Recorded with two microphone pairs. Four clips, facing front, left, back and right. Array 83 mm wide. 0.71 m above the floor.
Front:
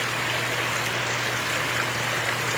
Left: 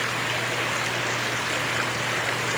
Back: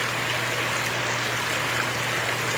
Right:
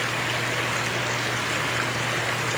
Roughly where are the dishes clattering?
I don't hear dishes clattering.